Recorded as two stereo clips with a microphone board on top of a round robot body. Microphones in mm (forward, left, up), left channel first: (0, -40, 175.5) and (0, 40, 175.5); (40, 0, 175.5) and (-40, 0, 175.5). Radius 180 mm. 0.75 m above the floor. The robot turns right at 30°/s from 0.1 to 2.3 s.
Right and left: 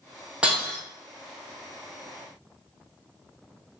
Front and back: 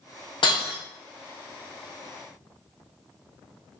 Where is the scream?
No scream in this recording.